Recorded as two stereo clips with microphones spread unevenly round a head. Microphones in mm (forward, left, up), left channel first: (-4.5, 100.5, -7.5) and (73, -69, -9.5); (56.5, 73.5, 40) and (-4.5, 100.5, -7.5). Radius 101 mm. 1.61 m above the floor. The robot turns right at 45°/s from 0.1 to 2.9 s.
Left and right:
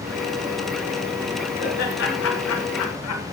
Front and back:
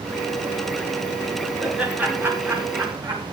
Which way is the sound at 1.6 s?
70° left.